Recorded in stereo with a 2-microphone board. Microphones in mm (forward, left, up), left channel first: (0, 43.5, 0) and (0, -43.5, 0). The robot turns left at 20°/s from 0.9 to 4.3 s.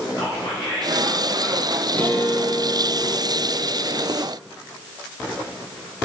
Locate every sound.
0.1 s whispering: 40° left (ahead or behind), 4.5 m; by 1.8 s 25° left (ahead or behind), 4.5 m
1.9 s a guitar: 160° left, 1.8 m; by 4.2 s 115° left, 1.8 m